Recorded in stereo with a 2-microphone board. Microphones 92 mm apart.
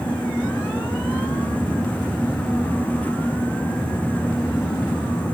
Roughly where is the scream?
No scream in this recording.